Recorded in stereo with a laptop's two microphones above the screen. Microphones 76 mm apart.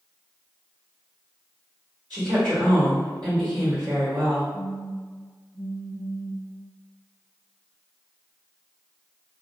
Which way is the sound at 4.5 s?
Centre (ahead or behind).